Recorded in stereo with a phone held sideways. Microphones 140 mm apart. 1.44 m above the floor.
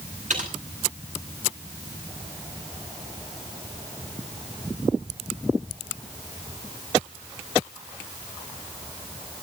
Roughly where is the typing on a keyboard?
Right.